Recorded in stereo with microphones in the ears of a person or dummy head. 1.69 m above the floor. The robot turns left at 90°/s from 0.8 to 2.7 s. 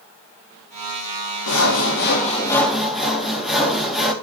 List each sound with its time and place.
1.5 s sawing: 110° left, 3 m; by 4.1 s straight ahead, 3 m